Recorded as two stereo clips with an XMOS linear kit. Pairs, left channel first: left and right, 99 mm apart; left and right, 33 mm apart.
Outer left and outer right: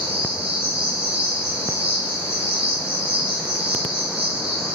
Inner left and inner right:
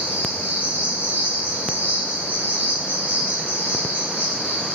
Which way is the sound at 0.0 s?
75° right (ahead or behind).